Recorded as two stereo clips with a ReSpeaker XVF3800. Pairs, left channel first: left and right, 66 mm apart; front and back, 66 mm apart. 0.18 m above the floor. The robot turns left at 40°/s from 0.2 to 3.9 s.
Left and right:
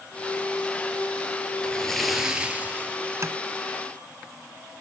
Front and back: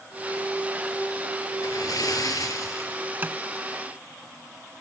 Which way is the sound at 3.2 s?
120° right.